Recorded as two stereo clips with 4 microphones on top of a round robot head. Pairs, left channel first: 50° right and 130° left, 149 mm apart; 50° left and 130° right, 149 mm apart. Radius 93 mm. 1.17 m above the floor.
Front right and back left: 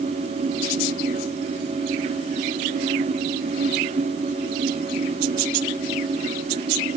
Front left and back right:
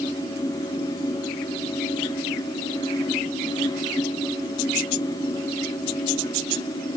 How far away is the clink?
No clink in this recording.